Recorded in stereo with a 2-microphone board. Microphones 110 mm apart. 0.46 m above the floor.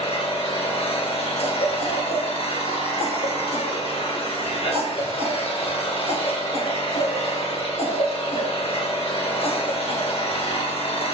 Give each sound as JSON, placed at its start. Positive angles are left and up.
{"t": 0.0, "sound": "an engine running", "side_deg": 70, "distance_m": 3.5}
{"t": 1.4, "sound": "a cough", "side_deg": 75, "distance_m": 5.0}